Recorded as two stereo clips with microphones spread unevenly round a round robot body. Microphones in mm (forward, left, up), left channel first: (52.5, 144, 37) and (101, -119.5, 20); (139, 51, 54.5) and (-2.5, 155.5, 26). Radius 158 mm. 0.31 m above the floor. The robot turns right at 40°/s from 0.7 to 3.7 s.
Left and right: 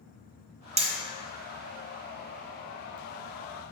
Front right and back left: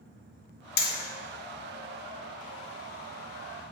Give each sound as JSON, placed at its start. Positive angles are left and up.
{"t": 0.8, "sound": "hammering", "azimuth_deg": -20, "distance_m": 1.3}